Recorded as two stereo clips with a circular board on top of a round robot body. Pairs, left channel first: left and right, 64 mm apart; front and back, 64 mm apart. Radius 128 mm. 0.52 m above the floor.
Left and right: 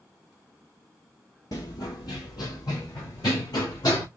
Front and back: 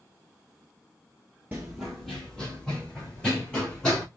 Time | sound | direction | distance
1.5 | running footsteps | 115° left | 0.6 m